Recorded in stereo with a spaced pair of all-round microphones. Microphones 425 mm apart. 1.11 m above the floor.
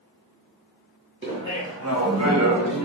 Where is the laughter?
25° right (ahead or behind), 1.4 m; by 2.9 s 40° right (ahead or behind), 0.8 m.